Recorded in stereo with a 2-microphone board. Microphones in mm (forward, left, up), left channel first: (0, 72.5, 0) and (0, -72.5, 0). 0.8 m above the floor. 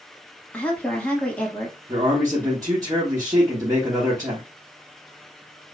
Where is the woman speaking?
10° left (ahead or behind), 1.4 m.